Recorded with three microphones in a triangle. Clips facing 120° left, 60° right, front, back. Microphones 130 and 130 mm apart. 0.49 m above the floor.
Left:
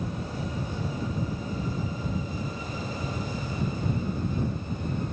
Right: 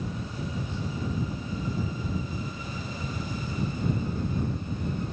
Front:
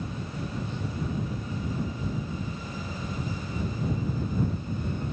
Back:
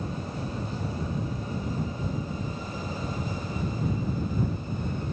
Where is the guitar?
I don't hear a guitar.